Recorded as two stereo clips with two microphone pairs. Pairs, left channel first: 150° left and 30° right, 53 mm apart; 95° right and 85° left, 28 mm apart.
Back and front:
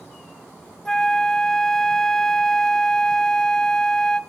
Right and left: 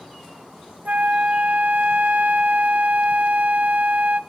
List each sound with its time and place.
0.8 s a flute: 75° left, 0.7 m